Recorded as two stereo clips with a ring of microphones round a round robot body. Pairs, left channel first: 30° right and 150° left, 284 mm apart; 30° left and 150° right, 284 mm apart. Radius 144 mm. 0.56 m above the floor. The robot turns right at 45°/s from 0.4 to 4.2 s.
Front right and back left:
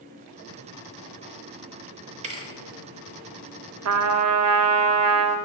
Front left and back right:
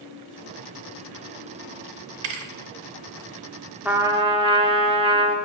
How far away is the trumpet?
About 0.7 m.